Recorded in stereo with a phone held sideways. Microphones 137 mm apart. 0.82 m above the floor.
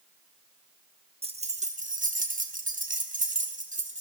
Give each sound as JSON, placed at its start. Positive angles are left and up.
{"t": 1.2, "sound": "keys jangling", "side_deg": -45, "distance_m": 0.8}